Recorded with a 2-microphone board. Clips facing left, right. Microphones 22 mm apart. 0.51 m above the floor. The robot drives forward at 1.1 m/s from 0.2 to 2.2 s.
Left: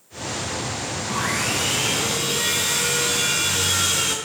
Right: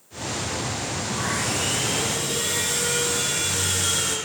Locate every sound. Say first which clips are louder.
1.1 s sawing: left 4 dB; 65° left (ahead or behind), 6 m; by 4.2 s 60° left (ahead or behind), 6.5 m